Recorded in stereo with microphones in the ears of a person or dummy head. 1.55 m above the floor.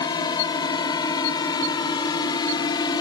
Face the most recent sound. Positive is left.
turn(degrees=20)  # may be behind; listen again after turning